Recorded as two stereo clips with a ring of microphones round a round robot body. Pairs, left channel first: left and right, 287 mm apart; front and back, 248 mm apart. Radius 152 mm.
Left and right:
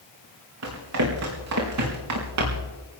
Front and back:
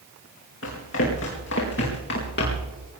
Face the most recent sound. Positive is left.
turn(degrees=-60)